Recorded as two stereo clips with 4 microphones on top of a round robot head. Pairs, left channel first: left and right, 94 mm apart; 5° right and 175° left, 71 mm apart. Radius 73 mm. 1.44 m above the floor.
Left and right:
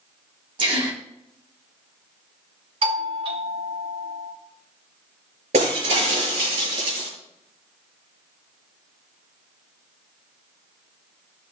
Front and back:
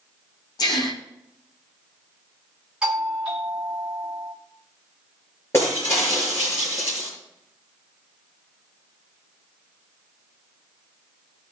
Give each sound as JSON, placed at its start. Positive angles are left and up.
{"t": 0.6, "sound": "a gasp", "azimuth_deg": -45, "distance_m": 2.5}
{"t": 2.8, "sound": "a doorbell", "azimuth_deg": -100, "distance_m": 4.0}
{"t": 5.5, "sound": "breaking glass", "azimuth_deg": -70, "distance_m": 7.0}